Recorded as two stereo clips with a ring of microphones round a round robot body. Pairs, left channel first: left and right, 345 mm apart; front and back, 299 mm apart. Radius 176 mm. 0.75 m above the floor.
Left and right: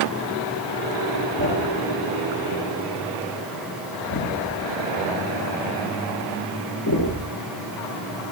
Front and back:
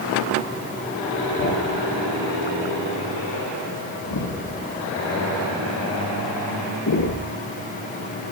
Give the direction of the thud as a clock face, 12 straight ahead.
11 o'clock.